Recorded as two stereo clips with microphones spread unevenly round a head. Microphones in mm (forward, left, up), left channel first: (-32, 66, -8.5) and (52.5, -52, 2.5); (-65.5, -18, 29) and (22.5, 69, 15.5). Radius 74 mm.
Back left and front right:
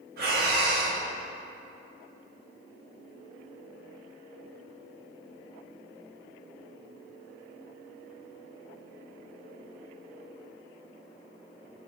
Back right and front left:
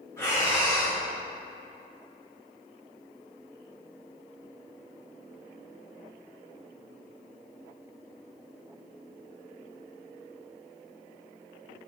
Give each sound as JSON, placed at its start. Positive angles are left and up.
{"t": 0.2, "sound": "breathing", "azimuth_deg": -65, "distance_m": 1.1}